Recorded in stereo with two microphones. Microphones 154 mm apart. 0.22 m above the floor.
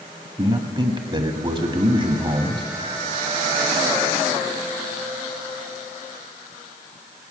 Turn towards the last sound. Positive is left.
turn(degrees=-30)  # may be behind; listen again after turning